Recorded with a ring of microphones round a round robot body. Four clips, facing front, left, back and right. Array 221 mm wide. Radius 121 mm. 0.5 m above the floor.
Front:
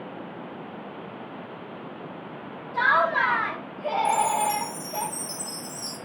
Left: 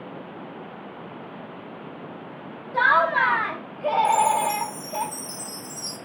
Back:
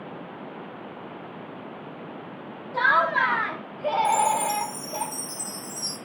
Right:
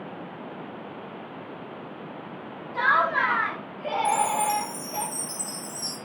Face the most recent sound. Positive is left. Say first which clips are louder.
# left 1 dB, front 1 dB
turn(degrees=-155)